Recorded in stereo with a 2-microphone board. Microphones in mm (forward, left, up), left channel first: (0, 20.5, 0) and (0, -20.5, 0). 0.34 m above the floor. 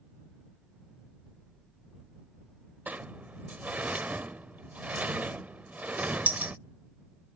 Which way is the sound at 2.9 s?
40° right (ahead or behind).